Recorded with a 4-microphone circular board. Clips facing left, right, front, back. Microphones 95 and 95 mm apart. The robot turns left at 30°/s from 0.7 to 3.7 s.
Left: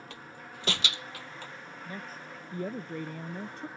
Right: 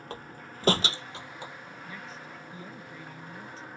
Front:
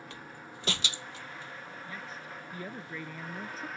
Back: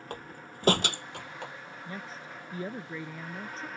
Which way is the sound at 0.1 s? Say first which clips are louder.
Right 3 dB, back 4 dB; 140° right.